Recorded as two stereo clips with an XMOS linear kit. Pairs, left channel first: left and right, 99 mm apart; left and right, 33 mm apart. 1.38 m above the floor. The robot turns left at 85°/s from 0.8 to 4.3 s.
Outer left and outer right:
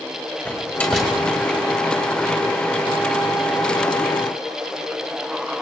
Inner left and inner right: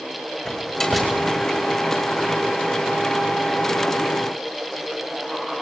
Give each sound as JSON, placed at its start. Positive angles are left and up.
{"t": 0.5, "sound": "a door slam", "side_deg": 20, "distance_m": 4.5}